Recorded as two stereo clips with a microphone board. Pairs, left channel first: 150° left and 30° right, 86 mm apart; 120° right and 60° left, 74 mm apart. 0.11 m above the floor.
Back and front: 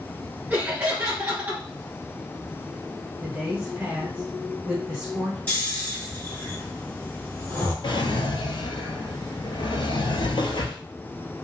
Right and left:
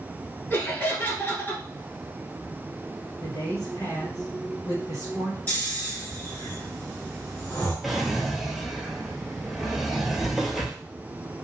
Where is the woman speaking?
95° right, 1.5 m.